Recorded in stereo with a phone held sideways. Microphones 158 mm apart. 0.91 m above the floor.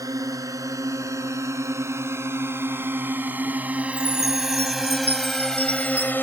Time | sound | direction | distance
0.0 | a drone | 20° right (ahead or behind) | ?
3.9 | a chime | 85° right | ?